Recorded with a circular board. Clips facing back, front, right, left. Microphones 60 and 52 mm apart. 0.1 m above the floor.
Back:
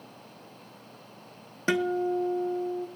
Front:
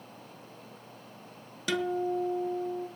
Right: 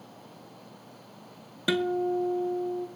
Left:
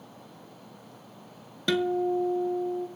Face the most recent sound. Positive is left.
turn(degrees=-165)